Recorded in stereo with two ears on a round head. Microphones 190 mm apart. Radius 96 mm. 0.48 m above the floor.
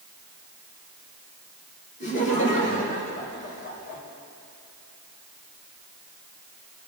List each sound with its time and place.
2.0 s laughter: 35° left (ahead or behind), 4.5 m; by 4.0 s 40° left (ahead or behind), 5.5 m